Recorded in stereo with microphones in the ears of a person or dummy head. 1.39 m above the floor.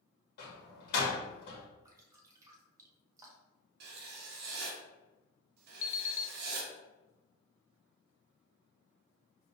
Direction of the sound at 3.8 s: 65° right (ahead or behind).